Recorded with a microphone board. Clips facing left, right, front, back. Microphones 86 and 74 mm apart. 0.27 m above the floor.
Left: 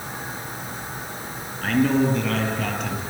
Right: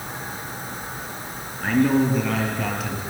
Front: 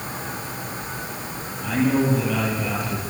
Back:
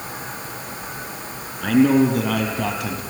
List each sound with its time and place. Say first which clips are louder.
1.6 s a man speaking: right 1 dB, back 5 dB; 170° right, 6 m; by 3.0 s 175° right, 6.5 m